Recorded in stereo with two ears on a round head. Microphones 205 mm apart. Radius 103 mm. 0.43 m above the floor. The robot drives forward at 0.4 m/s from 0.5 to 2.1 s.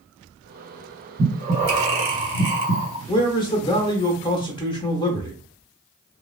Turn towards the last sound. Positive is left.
turn(degrees=20)  # may be behind; listen again after turning